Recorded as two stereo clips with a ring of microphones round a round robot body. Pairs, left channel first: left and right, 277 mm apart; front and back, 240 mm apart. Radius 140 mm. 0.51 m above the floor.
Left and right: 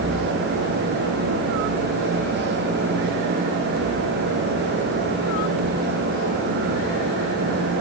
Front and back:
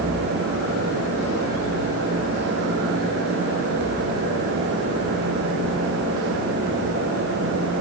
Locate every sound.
Only background noise.